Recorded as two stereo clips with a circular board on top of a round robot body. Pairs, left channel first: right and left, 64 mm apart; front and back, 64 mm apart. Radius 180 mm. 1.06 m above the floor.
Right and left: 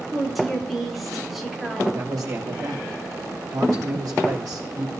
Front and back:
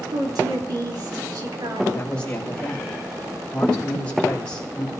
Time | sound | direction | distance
0.1 | a woman speaking | straight behind | 4 m
1.9 | a man speaking | 75° left | 5 m